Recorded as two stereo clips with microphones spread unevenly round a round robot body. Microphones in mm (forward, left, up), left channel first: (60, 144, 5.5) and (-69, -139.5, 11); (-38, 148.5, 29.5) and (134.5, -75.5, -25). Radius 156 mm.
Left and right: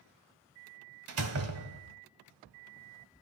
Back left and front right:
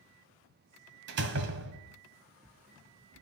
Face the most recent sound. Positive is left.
turn(degrees=-85)